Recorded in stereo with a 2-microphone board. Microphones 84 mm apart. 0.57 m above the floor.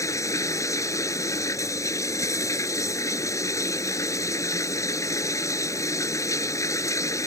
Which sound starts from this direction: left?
Running water, at 0.0 s.